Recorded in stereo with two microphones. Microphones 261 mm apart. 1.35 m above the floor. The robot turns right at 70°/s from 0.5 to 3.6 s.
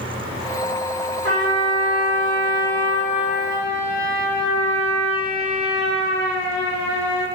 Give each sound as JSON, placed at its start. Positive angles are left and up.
{"t": 1.2, "sound": "a trumpet", "azimuth_deg": -55, "distance_m": 1.2}